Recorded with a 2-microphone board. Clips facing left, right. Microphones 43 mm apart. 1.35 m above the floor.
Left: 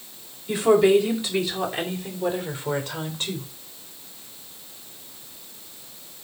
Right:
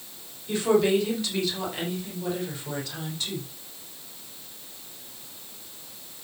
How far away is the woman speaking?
About 5 m.